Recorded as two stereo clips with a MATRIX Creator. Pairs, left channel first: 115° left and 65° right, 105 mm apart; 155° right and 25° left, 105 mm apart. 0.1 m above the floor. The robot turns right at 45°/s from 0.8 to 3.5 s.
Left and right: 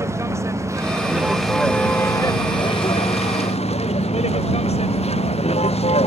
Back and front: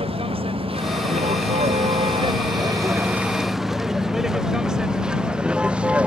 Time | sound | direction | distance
0.0 | a vehicle | 5° right | ?